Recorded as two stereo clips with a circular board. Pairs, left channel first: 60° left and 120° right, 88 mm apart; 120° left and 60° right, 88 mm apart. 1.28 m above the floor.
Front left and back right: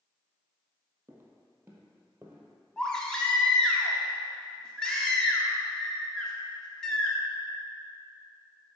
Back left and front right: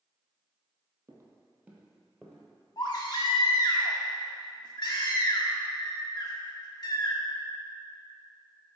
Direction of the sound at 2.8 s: 140° left.